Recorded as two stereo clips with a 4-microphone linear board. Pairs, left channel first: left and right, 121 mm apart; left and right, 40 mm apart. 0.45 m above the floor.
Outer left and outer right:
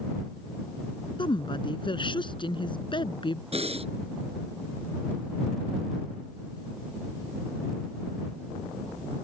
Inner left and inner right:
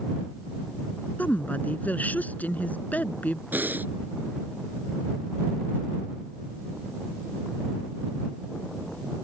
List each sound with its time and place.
1.2 s a woman speaking: 45° left (ahead or behind)
3.5 s breathing: 55° right (ahead or behind)